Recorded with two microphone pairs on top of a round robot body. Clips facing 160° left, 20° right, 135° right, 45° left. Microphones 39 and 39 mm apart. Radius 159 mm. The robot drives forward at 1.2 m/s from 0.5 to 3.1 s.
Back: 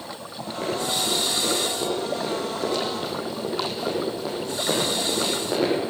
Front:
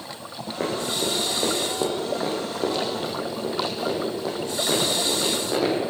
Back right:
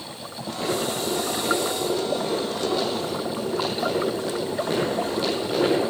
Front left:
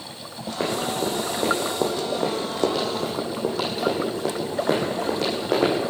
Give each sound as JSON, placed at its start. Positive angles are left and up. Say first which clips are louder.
{"t": 0.6, "sound": "running footsteps", "louder": "even, front left 1 dB", "azimuth_deg": 10, "distance_m": 4.0}